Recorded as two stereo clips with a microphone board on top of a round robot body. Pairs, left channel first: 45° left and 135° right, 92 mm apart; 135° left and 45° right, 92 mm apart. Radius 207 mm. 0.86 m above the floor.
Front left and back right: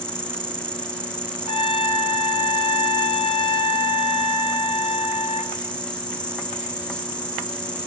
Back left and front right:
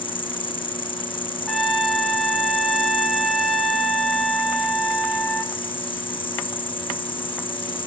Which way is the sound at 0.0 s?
120° left.